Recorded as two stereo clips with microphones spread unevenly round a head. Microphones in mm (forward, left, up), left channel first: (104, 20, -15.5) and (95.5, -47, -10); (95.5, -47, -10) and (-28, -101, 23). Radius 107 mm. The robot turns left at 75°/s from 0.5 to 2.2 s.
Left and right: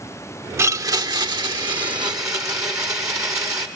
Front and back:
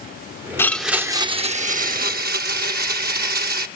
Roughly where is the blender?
Ahead right.